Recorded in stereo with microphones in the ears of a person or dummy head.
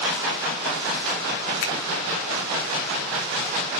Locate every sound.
1.6 s a finger snap: 80° left, 3 m